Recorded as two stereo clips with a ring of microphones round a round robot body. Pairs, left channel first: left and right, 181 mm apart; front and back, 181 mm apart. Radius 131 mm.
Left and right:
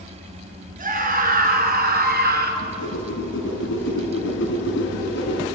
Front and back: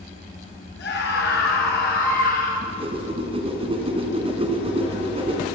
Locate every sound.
0.8 s a scream: 45° right, 5.5 m; by 2.5 s 50° right, 4.5 m
2.6 s a whoosh: 120° left, 3.5 m